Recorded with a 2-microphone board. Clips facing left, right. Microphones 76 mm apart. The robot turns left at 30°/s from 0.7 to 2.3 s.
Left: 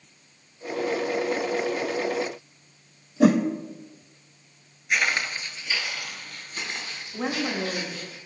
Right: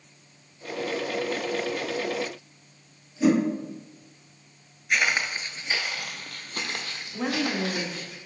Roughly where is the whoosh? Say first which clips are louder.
Left 2 dB; left.